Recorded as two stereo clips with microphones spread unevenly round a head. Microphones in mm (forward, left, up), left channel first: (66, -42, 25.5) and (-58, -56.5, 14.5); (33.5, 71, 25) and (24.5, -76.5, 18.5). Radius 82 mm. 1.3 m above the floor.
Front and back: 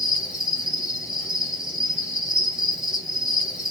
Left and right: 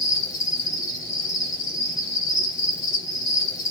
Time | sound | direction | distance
0.0 | an insect | 105° left | 0.9 m